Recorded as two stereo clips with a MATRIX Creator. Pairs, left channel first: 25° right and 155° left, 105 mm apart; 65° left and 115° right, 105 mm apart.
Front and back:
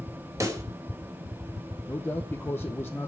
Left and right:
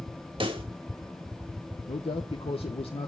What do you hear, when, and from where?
0.4 s a pop: 145° right, 1.9 m
1.9 s a man speaking: 45° left, 1.0 m